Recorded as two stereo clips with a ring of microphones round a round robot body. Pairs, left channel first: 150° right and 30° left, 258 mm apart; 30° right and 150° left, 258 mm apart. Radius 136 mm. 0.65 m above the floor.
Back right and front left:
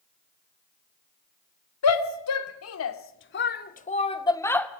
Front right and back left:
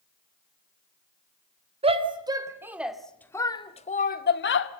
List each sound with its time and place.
1.8 s a shout: 145° right, 3 m; by 4.7 s 65° right, 2 m